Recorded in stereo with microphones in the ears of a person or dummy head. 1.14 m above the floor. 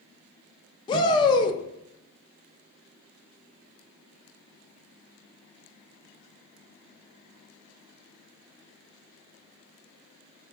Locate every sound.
0.9 s a shout: 25° left (ahead or behind), 0.5 m